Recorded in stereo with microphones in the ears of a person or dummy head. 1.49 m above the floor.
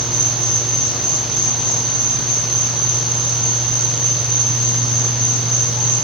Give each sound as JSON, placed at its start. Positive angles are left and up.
{"t": 0.0, "sound": "an insect", "side_deg": 40, "distance_m": 1.2}